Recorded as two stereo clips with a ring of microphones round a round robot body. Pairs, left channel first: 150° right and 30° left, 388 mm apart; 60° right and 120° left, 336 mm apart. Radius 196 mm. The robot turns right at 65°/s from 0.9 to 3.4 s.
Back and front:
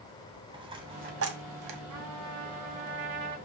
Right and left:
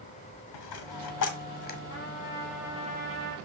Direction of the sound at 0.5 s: 50° right.